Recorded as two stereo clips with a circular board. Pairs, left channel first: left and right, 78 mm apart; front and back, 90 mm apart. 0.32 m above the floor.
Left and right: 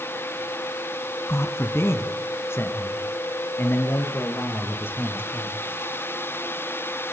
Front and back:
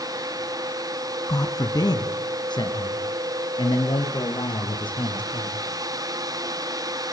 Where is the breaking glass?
No breaking glass in this recording.